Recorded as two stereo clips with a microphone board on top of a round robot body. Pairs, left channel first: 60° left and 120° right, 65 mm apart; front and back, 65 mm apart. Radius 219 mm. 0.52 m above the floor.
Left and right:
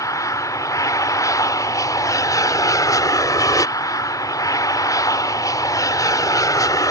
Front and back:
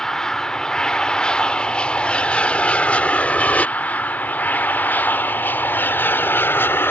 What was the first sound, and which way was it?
An aircraft, 80° left.